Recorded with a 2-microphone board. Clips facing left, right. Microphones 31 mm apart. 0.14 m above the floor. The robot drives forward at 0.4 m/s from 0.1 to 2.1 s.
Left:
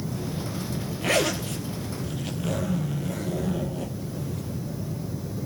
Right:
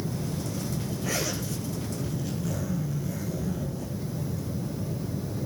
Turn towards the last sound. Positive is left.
turn(degrees=50)  # may be behind; listen again after turning